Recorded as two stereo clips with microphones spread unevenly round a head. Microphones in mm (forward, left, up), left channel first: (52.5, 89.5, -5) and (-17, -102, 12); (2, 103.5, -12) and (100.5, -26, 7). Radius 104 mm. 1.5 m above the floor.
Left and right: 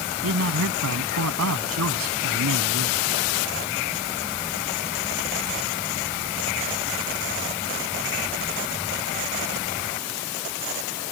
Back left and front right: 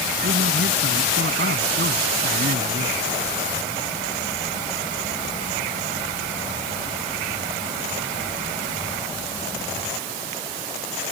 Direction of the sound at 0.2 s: 95° right.